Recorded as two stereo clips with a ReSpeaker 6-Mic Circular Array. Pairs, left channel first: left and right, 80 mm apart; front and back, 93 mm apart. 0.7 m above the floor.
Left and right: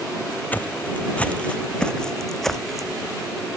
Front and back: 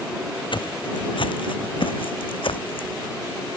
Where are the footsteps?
25° left; by 3.0 s straight ahead.